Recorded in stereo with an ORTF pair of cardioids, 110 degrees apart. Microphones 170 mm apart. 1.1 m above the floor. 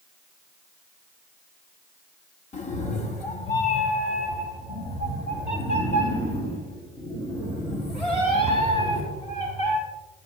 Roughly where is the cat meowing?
Ahead left.